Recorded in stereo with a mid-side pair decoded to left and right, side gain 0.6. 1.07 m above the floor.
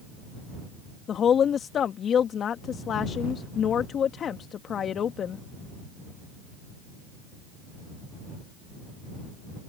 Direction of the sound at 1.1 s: 45° left.